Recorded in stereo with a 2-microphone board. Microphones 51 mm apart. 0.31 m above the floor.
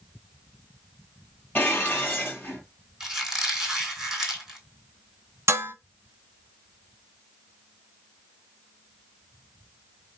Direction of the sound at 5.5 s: 65° right (ahead or behind).